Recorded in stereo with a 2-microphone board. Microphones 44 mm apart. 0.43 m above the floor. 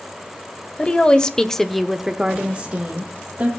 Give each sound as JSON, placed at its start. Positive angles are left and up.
{"t": 0.8, "sound": "a woman speaking", "side_deg": 20, "distance_m": 1.6}